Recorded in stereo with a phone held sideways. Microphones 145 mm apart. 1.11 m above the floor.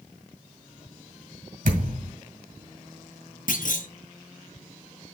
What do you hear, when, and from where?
1.6 s a thud: 65° right (ahead or behind), 2 m
3.5 s a clunk: 65° left (ahead or behind), 0.9 m